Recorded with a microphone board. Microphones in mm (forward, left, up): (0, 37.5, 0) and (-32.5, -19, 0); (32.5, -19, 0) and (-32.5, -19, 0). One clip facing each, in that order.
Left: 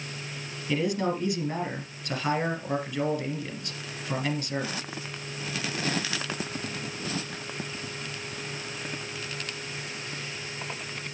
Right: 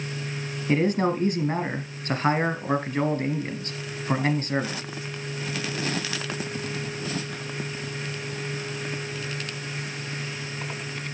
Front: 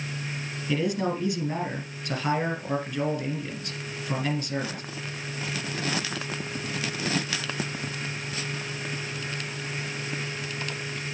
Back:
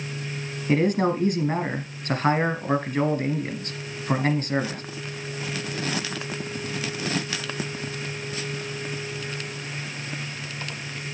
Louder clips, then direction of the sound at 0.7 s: Right 4 dB, back 5 dB; 155° right.